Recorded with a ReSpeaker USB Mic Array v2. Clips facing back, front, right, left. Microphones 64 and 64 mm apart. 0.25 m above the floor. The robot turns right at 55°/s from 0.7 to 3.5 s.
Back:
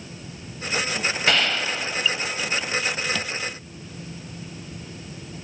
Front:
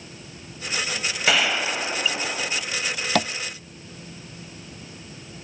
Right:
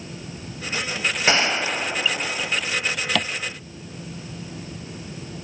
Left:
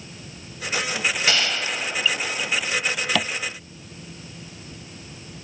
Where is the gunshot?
80° right, 0.6 m; by 2.6 s 5° right, 0.6 m.